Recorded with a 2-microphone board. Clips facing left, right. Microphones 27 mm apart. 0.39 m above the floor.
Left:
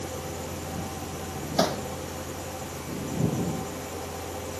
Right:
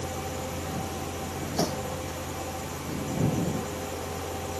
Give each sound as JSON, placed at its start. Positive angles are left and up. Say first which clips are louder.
{"t": 1.6, "sound": "hammering", "louder": "left 4 dB", "side_deg": 60}